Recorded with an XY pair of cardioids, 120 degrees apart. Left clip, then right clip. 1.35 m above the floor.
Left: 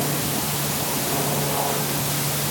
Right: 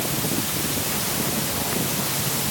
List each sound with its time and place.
Only background noise.